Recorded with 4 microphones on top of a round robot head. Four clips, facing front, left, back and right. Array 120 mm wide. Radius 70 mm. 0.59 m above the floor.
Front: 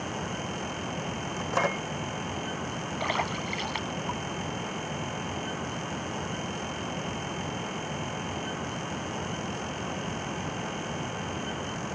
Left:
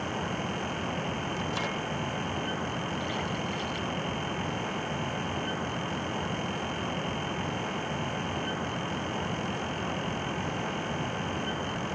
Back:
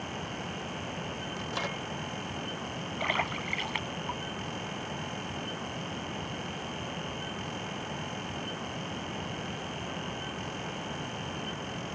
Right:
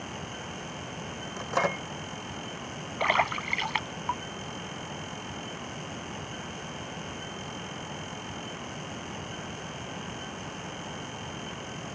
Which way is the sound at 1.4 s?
45° right.